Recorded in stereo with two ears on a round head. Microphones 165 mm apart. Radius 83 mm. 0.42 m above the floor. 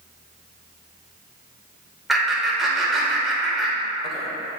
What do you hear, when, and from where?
2.1 s laughter: centre (ahead or behind), 1.6 m